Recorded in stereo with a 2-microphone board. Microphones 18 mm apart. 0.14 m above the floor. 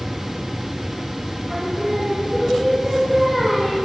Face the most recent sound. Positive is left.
turn(degrees=-25)  # may be behind; listen again after turning